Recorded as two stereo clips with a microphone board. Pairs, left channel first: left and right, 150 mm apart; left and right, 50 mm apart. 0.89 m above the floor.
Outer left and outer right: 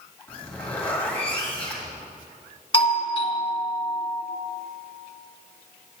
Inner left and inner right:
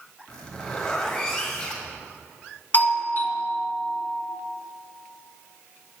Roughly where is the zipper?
Centre.